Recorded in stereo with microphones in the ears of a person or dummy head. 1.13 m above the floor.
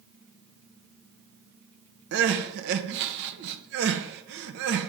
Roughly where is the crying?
Right.